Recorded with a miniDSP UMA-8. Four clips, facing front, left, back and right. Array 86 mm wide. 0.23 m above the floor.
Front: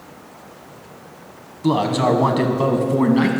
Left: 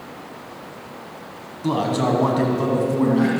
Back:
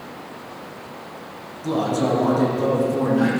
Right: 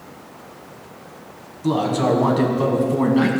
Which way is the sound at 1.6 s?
20° left.